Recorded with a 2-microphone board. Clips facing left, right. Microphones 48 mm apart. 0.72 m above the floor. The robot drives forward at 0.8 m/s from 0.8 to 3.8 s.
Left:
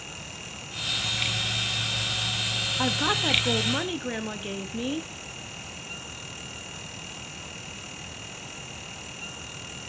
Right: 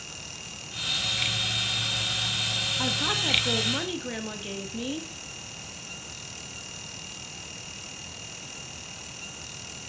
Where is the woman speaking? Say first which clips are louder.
Left 4 dB; 20° left (ahead or behind), 0.9 m; by 5.1 s 15° left (ahead or behind), 1.3 m.